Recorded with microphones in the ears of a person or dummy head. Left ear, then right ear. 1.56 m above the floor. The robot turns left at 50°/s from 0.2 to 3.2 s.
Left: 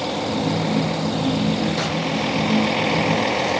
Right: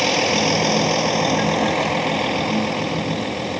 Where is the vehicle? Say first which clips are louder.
Right 6 dB; 70° right; by 3.6 s 140° left.